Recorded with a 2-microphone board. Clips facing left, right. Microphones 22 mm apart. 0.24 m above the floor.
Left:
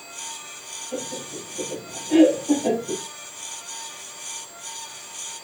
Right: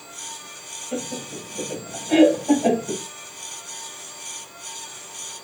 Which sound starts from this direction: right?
Laughter, at 0.9 s.